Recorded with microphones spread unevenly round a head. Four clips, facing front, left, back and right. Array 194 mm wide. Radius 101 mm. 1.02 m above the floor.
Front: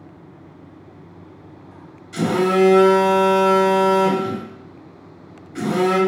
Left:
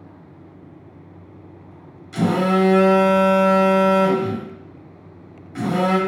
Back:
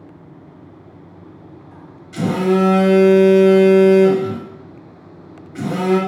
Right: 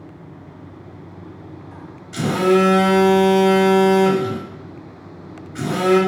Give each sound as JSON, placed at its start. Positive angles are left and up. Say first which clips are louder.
{"t": 2.1, "sound": "a phone buzzing", "louder": "right 2 dB, back 1 dB", "azimuth_deg": 105, "distance_m": 1.3}